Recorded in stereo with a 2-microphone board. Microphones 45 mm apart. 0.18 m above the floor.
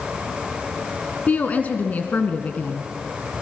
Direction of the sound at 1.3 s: 40° left (ahead or behind).